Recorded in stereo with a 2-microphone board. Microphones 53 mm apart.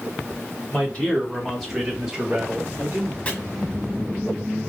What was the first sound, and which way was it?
A man speaking, 25° left (ahead or behind).